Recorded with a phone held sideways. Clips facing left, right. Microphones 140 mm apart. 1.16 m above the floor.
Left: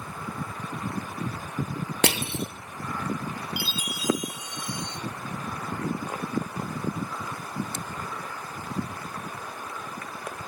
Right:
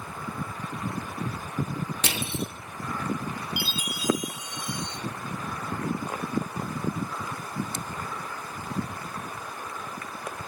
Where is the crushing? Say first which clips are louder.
Left 8 dB; 60° left (ahead or behind), 0.6 m.